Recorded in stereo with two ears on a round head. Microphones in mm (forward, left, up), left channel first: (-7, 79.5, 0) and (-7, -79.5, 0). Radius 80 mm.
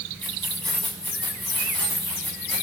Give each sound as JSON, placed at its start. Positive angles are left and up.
{"t": 0.2, "sound": "keys jangling", "side_deg": 5, "distance_m": 6.5}